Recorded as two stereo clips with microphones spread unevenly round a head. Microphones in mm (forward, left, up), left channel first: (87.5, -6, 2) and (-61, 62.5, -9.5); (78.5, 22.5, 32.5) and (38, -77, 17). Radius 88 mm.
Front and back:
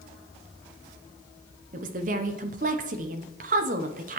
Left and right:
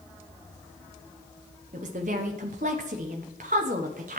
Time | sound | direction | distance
1.7 | a woman speaking | 155° right | 0.7 m